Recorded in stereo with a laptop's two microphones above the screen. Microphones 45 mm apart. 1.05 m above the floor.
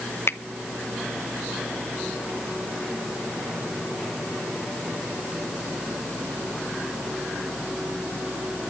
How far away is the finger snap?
About 0.7 m.